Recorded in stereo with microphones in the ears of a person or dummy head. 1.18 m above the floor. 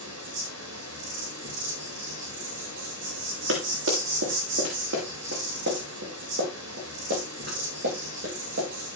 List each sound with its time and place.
0.0 s an insect: 60° right (ahead or behind), 8.5 m
3.5 s running footsteps: 65° right (ahead or behind), 7 m; by 9.0 s 45° right (ahead or behind), 15 m